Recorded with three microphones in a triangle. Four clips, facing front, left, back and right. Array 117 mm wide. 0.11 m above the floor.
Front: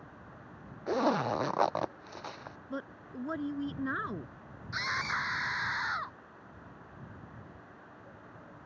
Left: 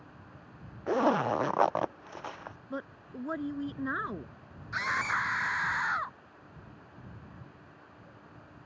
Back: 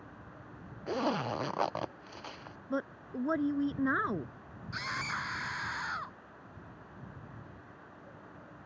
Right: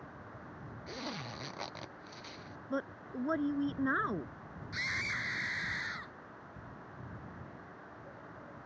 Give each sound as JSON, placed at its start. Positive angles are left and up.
{"t": 0.9, "sound": "a zipper", "azimuth_deg": 65}
{"t": 2.7, "sound": "a woman speaking", "azimuth_deg": -160}
{"t": 4.7, "sound": "a scream", "azimuth_deg": 70}